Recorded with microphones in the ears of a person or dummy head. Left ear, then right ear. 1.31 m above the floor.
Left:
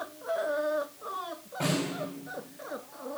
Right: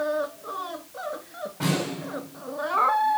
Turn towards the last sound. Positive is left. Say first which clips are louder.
# right 3 dB
turn(degrees=25)  # may be behind; listen again after turning